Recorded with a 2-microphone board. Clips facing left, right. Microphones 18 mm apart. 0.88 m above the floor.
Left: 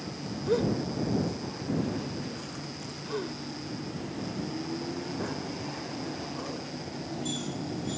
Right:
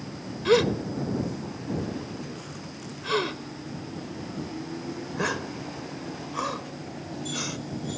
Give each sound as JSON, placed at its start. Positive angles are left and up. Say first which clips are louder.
{"t": 0.5, "sound": "a gasp", "louder": "right 6 dB", "side_deg": -75}